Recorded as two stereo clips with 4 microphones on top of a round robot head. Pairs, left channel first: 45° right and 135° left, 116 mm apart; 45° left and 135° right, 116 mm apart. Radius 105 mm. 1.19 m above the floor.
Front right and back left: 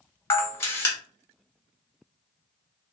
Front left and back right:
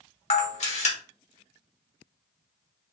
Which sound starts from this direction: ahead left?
A camera shutter, at 0.3 s.